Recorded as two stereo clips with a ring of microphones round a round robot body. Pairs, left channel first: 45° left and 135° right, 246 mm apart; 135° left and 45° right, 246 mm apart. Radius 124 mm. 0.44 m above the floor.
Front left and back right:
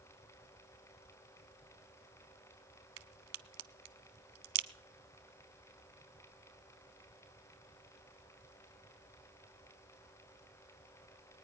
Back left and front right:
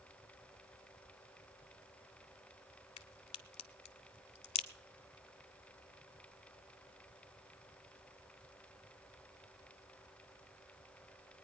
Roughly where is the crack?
Behind.